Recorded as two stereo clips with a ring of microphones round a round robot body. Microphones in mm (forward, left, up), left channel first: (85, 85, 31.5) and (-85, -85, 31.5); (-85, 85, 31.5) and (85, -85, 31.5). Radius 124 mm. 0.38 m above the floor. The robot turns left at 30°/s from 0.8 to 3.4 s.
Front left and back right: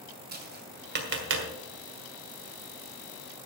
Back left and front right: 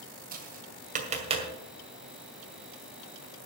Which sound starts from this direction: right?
Tapping, at 0.3 s.